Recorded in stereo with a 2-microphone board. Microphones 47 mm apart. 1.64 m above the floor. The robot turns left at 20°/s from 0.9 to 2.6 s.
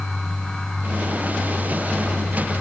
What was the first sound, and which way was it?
Only background noise.